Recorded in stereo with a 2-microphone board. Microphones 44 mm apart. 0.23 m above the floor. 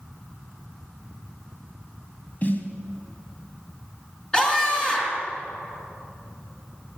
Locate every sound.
2.4 s a snare drum: 40° left (ahead or behind), 1.8 m
4.3 s a scream: 15° left (ahead or behind), 3.5 m